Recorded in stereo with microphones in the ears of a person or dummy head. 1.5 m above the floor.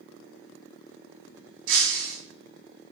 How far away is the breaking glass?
About 3.5 m.